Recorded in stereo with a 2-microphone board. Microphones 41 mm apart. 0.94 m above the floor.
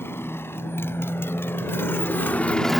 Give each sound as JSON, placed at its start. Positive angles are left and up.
{"t": 0.0, "sound": "a motorcycle", "side_deg": 85}